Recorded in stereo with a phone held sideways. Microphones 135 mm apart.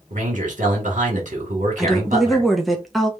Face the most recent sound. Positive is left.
turn(degrees=0)  # may be behind; listen again after turning